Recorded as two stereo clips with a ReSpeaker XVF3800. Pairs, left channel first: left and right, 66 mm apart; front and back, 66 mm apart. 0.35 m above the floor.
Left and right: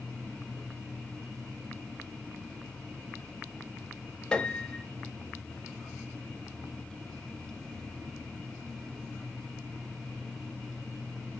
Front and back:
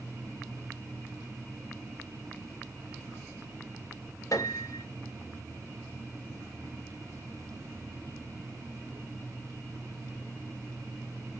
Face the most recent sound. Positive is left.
turn(degrees=15)